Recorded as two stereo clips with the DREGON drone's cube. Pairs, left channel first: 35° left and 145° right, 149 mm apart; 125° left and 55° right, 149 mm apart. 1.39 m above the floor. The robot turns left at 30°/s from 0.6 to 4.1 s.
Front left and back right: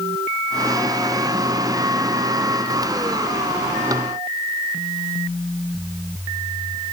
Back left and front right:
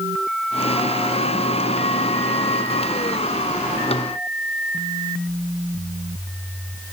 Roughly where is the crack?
No crack in this recording.